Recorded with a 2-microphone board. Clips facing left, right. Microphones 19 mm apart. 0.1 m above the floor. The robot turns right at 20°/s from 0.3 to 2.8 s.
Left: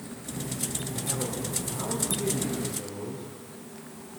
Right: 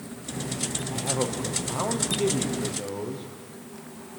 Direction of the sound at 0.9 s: 85° right.